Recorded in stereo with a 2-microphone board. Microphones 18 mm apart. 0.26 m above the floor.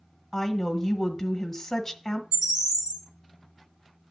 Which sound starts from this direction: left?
A woman speaking, at 0.3 s.